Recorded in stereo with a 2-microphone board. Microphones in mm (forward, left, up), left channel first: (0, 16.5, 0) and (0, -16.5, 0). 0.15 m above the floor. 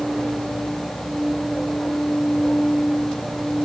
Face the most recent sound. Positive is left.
No sound to turn to.